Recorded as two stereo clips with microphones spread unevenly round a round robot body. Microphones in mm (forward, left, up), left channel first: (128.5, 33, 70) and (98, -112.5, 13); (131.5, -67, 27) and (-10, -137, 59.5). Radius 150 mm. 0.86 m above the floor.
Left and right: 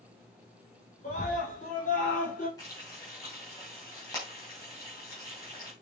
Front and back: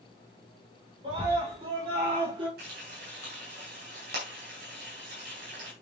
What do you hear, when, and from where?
1.0 s a scream: 140° left, 4 m
2.6 s frying: 155° left, 4 m